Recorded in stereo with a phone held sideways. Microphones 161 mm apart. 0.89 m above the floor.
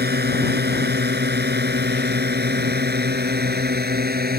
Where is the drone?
80° right; by 4.4 s 70° right (ahead or behind).